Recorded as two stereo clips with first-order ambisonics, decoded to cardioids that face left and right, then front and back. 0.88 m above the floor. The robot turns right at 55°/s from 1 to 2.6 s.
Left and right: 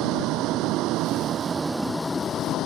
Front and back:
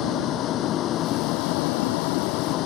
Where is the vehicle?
50° right; by 2.7 s 40° left.